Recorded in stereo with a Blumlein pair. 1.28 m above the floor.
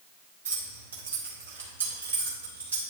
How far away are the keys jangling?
About 1.8 m.